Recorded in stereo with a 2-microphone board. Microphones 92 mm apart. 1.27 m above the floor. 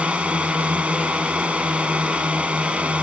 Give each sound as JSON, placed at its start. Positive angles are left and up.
{"t": 0.0, "sound": "a drone", "side_deg": -15}